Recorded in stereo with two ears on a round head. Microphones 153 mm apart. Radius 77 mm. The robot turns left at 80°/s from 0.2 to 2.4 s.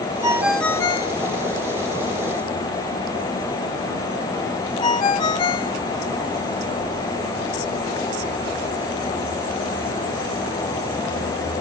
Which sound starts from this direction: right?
A ringtone, at 0.2 s.